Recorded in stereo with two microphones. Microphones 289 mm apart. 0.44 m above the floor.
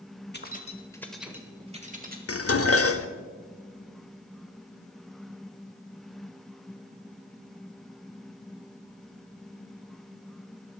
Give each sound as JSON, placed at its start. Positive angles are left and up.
{"t": 0.3, "sound": "keys jangling", "side_deg": 35, "distance_m": 1.4}
{"t": 2.3, "sound": "dishes clattering", "side_deg": 50, "distance_m": 0.8}